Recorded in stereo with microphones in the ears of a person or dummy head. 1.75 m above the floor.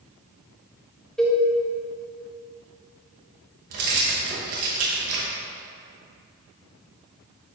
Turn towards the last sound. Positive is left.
turn(degrees=-40)  # may be behind; listen again after turning